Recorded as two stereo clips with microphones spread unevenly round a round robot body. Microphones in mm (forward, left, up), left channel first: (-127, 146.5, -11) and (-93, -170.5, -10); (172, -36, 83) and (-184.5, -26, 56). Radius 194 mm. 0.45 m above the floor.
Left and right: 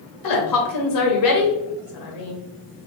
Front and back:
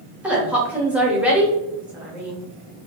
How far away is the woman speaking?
About 1.6 m.